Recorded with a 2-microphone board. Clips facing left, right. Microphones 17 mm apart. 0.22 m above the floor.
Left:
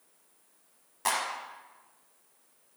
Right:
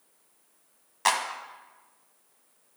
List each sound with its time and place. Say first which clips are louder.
1.1 s a clap: right 5 dB; 35° right (ahead or behind), 1.0 m